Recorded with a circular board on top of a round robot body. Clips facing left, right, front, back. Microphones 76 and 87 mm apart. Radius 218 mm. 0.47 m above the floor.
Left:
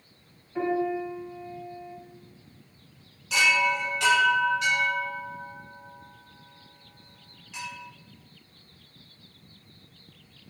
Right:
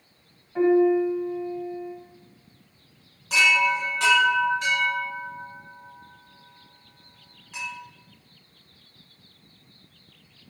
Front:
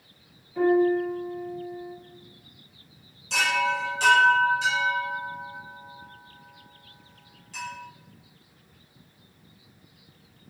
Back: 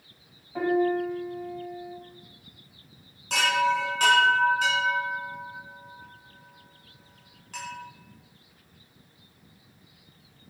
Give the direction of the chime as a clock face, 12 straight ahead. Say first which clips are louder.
Right 2 dB, back 1 dB; 5 o'clock.